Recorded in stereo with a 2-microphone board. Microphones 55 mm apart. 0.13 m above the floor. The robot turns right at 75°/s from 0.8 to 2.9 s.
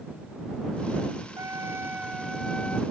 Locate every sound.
1.4 s a trumpet: 80° right; by 2.8 s 30° left